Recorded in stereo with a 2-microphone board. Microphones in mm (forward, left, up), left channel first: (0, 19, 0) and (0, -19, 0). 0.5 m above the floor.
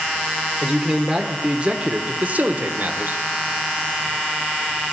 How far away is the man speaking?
About 1.3 m.